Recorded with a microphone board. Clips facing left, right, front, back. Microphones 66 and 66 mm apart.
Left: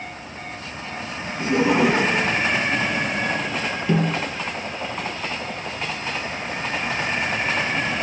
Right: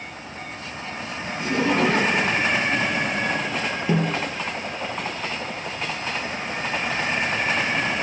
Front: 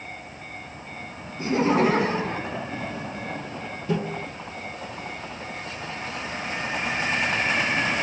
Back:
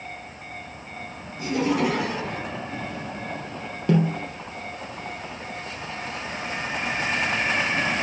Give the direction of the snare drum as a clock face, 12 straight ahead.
5 o'clock.